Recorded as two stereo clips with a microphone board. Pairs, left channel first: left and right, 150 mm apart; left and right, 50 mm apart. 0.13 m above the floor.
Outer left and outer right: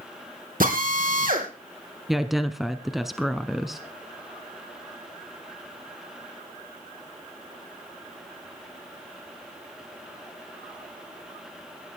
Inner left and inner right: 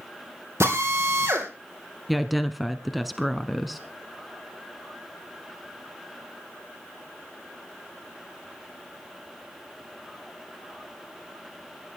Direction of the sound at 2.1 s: Centre (ahead or behind).